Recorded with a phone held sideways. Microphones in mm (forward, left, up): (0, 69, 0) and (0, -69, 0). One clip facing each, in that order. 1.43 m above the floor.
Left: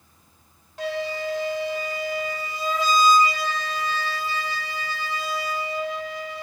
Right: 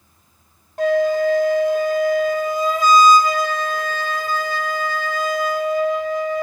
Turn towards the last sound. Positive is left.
turn(degrees=-50)  # may be behind; listen again after turning